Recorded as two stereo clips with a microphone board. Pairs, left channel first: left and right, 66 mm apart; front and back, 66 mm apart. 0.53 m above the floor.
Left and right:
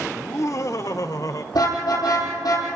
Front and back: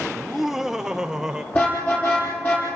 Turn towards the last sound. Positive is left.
turn(degrees=65)